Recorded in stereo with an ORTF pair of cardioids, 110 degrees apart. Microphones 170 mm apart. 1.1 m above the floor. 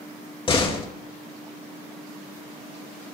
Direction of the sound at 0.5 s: 30° left.